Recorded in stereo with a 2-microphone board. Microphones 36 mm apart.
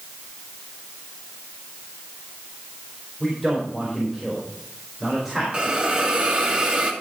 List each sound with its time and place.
3.2 s a man speaking: 10° right (ahead or behind), 4 m
5.5 s a hiss: 30° right (ahead or behind), 1.8 m